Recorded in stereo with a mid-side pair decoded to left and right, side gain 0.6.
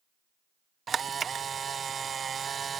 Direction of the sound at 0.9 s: 30° right.